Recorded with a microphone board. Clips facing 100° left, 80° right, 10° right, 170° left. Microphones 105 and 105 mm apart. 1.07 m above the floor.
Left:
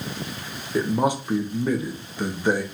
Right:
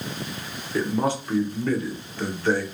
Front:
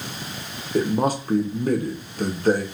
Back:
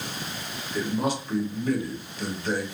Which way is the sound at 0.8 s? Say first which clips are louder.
Left 2 dB, front 6 dB; 25° left.